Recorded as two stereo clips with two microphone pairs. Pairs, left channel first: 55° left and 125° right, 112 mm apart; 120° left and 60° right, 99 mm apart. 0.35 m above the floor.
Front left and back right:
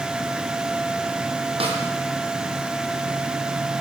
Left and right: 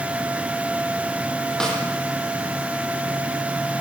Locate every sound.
1.6 s a snare drum: 155° right, 7.5 m